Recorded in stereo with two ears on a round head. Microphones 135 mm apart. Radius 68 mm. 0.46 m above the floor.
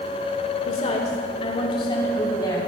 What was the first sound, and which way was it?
A woman speaking, 45° left (ahead or behind).